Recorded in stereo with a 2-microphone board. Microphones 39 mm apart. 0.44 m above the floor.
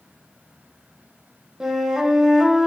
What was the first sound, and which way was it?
A flute, 15° right (ahead or behind).